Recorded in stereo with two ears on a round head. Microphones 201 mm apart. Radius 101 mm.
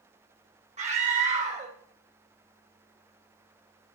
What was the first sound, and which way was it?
A scream, 30° right (ahead or behind).